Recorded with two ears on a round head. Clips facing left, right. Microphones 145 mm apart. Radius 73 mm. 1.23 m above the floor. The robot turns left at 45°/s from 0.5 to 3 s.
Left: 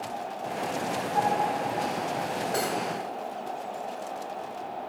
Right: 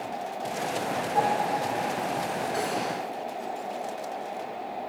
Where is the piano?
25° right (ahead or behind), 6 m; by 1.6 s 45° right (ahead or behind), 6 m.